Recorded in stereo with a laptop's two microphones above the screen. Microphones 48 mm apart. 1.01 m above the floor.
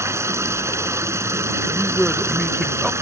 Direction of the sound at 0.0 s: 70° right (ahead or behind).